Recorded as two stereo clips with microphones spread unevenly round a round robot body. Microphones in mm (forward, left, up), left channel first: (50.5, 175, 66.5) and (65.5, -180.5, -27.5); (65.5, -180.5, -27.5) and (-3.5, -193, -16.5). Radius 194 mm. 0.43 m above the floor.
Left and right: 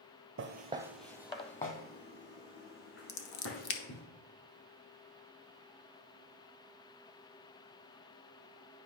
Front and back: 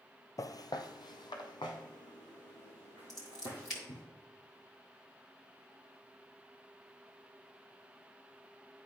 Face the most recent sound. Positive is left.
turn(degrees=95)